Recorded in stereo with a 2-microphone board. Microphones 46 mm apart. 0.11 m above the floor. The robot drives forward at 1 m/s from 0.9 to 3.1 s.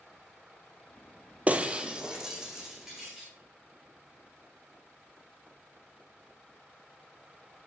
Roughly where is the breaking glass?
Right.